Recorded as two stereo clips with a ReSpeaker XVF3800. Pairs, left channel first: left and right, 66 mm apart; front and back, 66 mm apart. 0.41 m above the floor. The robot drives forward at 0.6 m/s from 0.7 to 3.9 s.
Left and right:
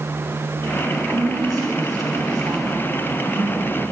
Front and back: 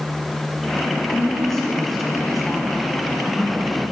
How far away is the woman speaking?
About 4.5 m.